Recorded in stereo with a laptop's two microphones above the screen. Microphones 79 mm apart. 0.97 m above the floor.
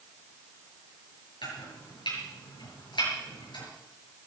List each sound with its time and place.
1.4 s chopping: 85° left, 7 m